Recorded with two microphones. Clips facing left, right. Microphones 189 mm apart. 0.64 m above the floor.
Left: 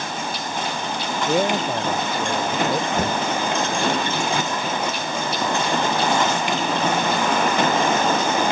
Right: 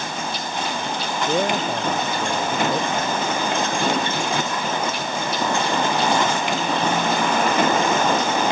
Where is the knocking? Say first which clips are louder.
Left 1 dB; 70° left (ahead or behind).